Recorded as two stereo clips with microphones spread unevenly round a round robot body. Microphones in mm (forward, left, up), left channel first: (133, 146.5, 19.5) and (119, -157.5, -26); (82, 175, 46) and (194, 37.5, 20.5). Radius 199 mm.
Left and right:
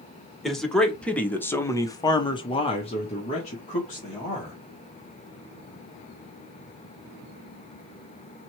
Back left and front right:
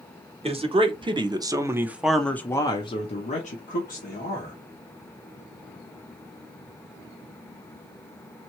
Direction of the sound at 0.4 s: 5° right.